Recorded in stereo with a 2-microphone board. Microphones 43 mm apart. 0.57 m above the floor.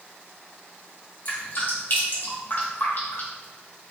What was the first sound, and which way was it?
Dripping, 60° left (ahead or behind).